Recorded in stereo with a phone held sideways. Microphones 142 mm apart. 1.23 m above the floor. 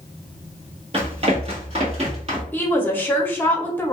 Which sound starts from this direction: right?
Running footsteps, at 0.9 s.